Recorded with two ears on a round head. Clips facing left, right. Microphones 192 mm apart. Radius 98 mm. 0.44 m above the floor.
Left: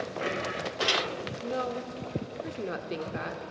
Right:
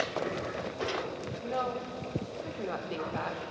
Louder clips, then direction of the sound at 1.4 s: Left 1 dB; 25° left (ahead or behind).